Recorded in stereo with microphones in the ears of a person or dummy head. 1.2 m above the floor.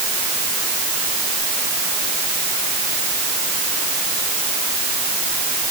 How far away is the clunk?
No clunk in this recording.